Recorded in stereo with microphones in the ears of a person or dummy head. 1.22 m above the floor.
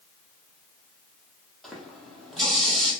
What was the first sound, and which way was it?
A running tap, 5° left (ahead or behind).